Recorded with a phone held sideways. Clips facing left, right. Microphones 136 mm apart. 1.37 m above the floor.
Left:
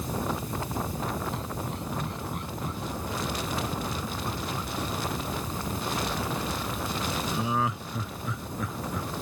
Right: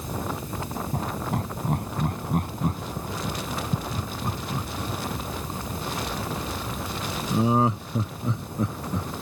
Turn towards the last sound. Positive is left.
turn(degrees=-30)  # may be behind; listen again after turning